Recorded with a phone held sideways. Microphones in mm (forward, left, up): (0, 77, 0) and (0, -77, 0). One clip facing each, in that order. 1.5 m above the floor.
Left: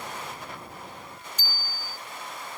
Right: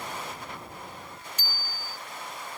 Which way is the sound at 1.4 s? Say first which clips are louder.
Left 1 dB; 75° right (ahead or behind).